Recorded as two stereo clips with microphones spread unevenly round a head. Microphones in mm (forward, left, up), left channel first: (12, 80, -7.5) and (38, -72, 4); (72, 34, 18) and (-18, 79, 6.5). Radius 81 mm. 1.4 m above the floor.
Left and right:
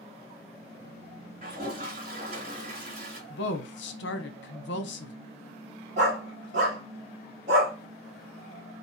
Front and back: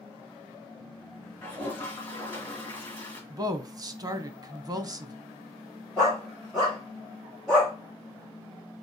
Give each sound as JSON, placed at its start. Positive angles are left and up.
{"t": 1.4, "sound": "a toilet flushing", "azimuth_deg": -95, "distance_m": 1.8}
{"t": 3.3, "sound": "a woman speaking", "azimuth_deg": 100, "distance_m": 0.7}
{"t": 6.0, "sound": "a dog barking", "azimuth_deg": -115, "distance_m": 1.4}